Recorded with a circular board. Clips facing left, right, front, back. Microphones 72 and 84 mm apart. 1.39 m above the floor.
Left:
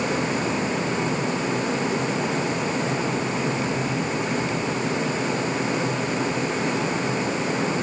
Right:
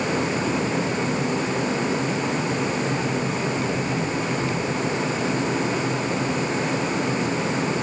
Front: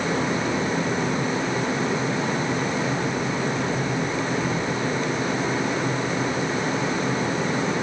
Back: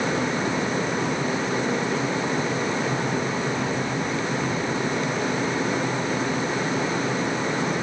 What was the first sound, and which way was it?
Only background noise.